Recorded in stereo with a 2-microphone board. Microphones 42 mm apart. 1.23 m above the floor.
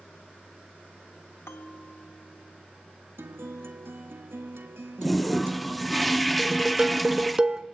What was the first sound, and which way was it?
A bell, 80° left.